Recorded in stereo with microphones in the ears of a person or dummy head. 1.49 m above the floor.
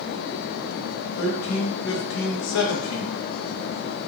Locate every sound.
1.2 s a man speaking: 75° left (ahead or behind), 0.8 m